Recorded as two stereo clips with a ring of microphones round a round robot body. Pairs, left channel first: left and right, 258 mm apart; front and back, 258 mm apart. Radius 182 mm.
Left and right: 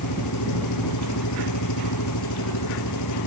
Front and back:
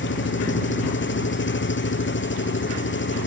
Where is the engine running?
45° left.